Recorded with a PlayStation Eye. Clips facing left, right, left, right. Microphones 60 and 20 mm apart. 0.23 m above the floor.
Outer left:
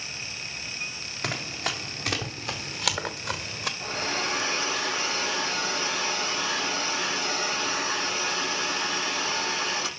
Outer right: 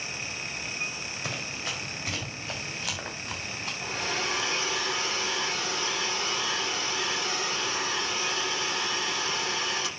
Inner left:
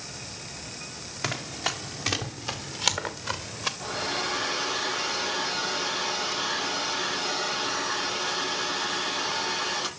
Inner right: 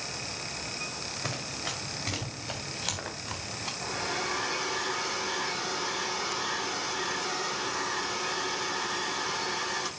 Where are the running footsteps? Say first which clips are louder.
Outer left 5 dB, inner left 8 dB; 65° left (ahead or behind), 4 m; by 3.7 s 80° left, 3 m.